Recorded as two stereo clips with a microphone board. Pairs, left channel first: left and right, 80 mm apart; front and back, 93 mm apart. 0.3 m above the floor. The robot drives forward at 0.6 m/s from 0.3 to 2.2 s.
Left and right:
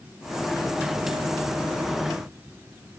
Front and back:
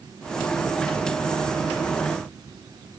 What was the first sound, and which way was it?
Only background noise.